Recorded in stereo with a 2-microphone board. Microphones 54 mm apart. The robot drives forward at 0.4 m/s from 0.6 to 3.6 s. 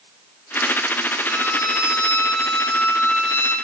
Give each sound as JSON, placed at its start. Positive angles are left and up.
{"t": 1.3, "sound": "a violin", "side_deg": 35, "distance_m": 4.0}